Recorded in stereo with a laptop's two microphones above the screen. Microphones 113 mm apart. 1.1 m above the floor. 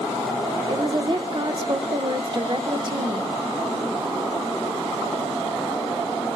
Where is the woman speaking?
45° right (ahead or behind), 0.5 m.